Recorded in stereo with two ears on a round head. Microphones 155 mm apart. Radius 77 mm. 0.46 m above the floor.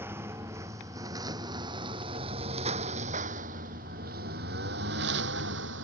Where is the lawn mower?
15° right (ahead or behind); by 5.8 s 80° right.